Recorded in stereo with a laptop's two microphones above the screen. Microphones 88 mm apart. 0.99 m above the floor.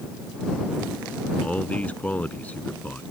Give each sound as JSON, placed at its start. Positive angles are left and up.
{"t": 1.4, "sound": "a man speaking", "side_deg": 15}